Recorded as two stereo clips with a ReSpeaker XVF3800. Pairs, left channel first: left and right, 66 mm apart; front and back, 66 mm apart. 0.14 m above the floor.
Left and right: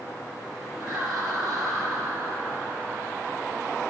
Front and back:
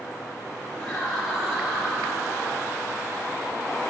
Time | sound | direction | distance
0.8 | laughter | 70° right | 2.5 m